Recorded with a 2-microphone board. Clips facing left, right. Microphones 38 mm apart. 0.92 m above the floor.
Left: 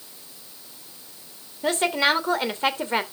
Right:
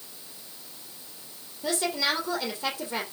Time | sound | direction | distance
1.6 | a woman speaking | 50° left (ahead or behind) | 3 m